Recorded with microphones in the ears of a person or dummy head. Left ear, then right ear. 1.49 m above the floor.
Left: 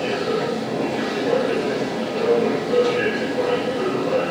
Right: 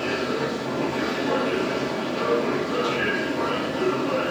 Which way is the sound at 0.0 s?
Centre (ahead or behind).